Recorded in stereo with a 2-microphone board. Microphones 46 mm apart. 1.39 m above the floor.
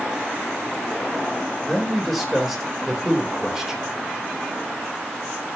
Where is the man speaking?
5° left (ahead or behind), 4.5 m; by 3.8 s 5° right (ahead or behind), 4 m.